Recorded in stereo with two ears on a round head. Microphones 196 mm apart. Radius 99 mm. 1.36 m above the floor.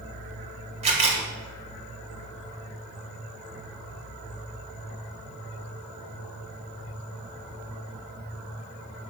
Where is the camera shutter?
30° right (ahead or behind), 2.5 m.